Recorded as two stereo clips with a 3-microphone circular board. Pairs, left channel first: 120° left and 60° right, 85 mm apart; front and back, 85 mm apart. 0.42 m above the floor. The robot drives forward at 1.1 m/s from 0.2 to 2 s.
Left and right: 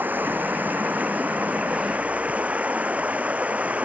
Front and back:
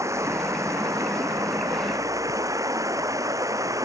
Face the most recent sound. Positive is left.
turn(degrees=-135)